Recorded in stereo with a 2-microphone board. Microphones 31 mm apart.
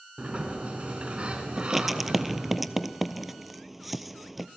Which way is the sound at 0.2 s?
40° right (ahead or behind).